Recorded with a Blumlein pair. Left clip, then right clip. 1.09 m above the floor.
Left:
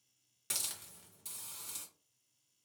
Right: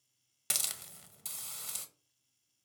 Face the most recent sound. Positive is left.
turn(degrees=-25)